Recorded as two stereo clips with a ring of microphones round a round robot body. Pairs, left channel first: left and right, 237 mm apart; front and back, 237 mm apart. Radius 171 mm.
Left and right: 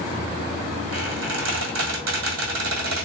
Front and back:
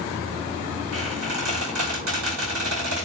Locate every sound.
0.9 s a squeak: 130° right, 1.4 m